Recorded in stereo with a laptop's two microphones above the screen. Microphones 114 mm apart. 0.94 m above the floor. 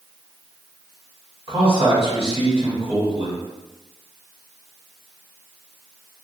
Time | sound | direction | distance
1.5 | a man speaking | 55° right (ahead or behind) | 1.4 m